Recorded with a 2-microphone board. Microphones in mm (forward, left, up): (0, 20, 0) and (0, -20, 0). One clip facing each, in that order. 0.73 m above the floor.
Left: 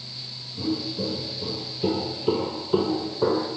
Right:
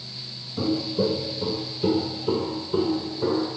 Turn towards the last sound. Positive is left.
turn(degrees=50)  # may be behind; listen again after turning